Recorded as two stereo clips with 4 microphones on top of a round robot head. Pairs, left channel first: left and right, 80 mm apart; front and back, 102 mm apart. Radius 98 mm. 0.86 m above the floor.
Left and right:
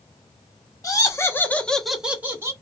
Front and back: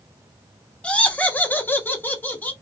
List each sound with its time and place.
0.8 s laughter: 75° left, 1.3 m; by 2.5 s 60° right, 1.1 m